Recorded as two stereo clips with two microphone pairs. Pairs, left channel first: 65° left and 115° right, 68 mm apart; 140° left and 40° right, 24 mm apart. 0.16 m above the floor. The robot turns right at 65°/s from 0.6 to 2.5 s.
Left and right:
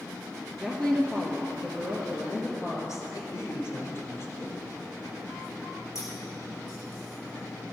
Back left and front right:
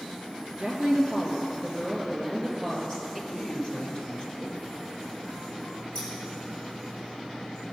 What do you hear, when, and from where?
0.6 s a woman speaking: 30° right, 3 m; by 3.2 s 90° left, 3 m
3.3 s a man speaking: 110° left, 2.5 m
6.0 s scissors: 110° left, 3.5 m